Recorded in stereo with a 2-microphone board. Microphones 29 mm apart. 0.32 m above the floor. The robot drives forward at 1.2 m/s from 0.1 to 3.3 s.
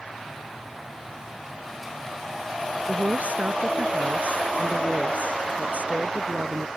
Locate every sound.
2.9 s a woman speaking: 60° right (ahead or behind); by 6.7 s 65° right (ahead or behind)